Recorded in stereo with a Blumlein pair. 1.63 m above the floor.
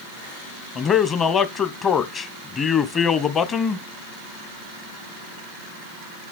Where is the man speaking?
25° left, 1.1 m.